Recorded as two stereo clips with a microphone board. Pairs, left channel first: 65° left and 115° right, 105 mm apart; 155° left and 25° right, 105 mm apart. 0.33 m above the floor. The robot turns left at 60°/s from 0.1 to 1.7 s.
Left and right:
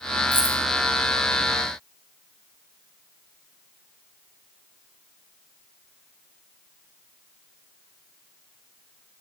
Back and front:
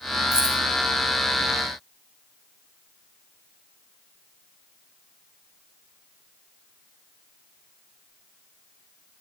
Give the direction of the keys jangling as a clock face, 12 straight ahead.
2 o'clock.